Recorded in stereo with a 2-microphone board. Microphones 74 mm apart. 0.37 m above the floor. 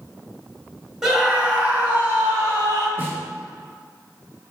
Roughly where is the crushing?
No crushing in this recording.